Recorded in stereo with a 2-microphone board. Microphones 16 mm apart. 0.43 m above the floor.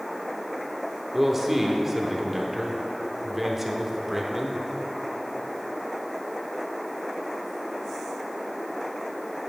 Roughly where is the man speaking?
Centre.